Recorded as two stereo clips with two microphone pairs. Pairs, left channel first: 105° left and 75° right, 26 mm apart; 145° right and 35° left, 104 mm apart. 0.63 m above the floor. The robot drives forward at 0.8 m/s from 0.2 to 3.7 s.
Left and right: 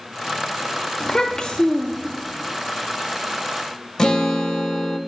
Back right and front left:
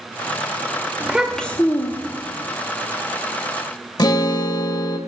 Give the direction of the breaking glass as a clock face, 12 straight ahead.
I don't hear breaking glass.